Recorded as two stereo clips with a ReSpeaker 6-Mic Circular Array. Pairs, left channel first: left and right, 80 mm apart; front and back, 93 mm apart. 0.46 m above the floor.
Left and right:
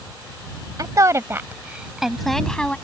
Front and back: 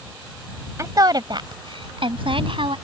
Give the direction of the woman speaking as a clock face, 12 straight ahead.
4 o'clock.